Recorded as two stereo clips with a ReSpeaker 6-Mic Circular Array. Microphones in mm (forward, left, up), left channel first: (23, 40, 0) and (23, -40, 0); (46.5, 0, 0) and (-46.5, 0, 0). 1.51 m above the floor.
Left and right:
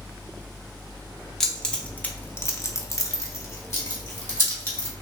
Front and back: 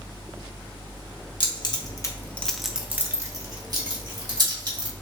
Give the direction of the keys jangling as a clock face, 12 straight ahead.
12 o'clock.